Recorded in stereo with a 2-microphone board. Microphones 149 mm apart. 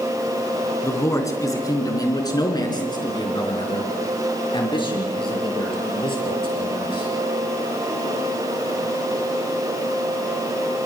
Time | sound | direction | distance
0.8 | a man speaking | 20° left (ahead or behind) | 3.5 m